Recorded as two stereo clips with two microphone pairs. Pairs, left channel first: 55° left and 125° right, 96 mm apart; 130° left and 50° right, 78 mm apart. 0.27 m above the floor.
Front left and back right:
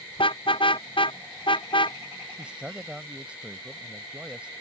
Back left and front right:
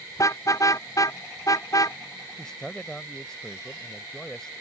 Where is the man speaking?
175° right.